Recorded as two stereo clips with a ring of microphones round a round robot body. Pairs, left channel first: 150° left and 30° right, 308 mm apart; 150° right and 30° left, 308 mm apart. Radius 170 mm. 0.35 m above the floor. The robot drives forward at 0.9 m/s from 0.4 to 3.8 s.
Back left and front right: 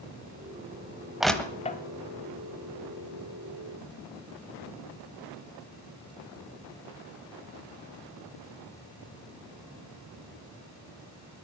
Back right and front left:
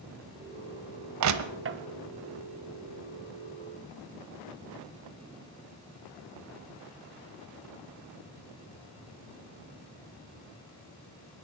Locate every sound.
1.2 s crushing: 60° left, 1.1 m; by 1.8 s 85° left, 1.0 m